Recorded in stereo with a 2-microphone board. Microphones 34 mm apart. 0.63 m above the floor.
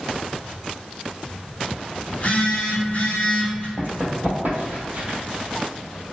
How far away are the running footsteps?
About 1.4 m.